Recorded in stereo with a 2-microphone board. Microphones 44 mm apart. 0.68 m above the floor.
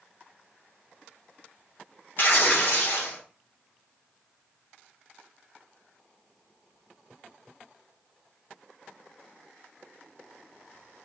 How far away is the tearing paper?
About 2.5 m.